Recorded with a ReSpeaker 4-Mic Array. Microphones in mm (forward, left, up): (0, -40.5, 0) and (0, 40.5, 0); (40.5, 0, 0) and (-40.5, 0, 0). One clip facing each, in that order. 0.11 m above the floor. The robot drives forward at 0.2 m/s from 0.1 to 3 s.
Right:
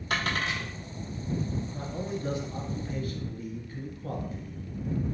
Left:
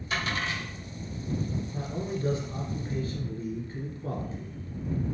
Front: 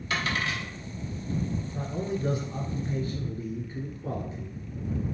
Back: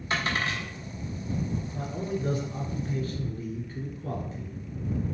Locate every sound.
0.1 s a dropped coin: 120° right, 2 m; by 0.7 s 125° right, 2 m
1.7 s a man speaking: 55° left, 1.3 m; by 4.6 s 75° left, 1.3 m